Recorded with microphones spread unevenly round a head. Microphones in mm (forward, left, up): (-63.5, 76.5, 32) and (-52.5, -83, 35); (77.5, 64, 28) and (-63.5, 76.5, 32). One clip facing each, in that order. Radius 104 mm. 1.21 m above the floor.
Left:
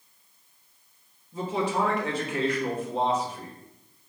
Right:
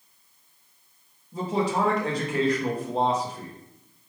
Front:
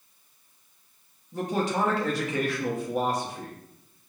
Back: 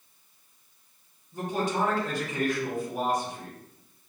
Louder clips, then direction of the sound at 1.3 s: Right 2 dB, front 2 dB; 30° right.